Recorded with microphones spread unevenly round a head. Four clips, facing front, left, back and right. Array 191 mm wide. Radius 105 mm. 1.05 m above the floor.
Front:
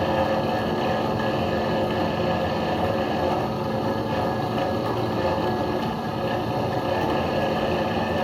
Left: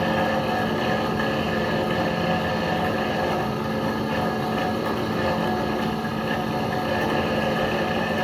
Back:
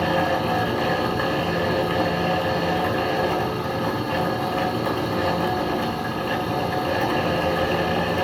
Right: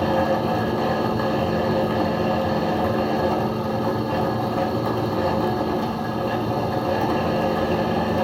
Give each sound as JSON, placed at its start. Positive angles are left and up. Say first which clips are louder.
{"t": 0.0, "sound": "a fan", "louder": "right 2 dB, back 1 dB", "azimuth_deg": -100, "distance_m": 1.1}